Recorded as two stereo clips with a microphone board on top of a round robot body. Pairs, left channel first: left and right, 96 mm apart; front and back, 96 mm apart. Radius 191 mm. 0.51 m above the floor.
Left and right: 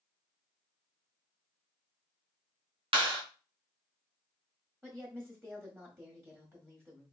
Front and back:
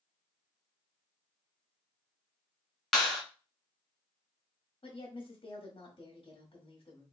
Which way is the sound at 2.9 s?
85° right.